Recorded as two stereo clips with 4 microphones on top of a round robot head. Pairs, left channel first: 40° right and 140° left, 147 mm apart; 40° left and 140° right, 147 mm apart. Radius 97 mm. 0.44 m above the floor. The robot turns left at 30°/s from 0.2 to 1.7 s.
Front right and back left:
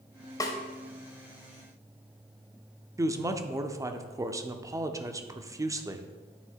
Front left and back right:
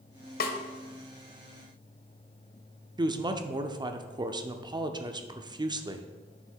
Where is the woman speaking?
170° right, 0.8 m.